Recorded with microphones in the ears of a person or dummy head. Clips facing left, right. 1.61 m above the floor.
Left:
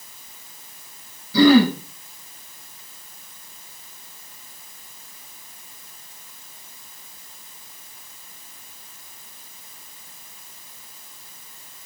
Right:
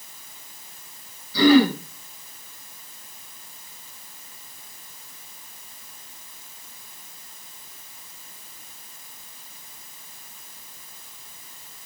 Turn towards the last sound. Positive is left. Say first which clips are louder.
# left 2 dB
turn(degrees=60)  # may be behind; listen again after turning